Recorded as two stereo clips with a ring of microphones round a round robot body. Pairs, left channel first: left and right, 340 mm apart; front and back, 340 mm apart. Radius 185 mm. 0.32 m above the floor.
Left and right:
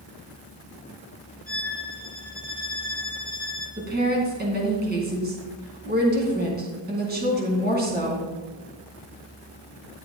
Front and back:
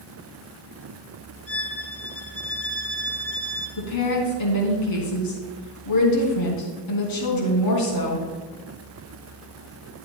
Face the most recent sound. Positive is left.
turn(degrees=-30)